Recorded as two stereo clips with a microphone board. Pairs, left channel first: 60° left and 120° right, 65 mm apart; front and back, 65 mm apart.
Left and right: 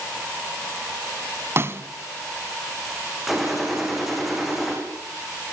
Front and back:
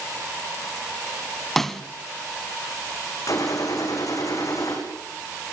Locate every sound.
1.6 s a snare drum: 85° right, 1.3 m
3.3 s a gunshot: 30° right, 8 m